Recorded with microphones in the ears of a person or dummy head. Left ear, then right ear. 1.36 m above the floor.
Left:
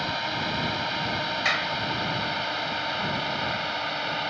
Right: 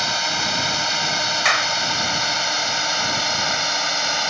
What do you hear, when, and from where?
0.0 s a drone: 80° right
1.4 s a clap: 40° right (ahead or behind)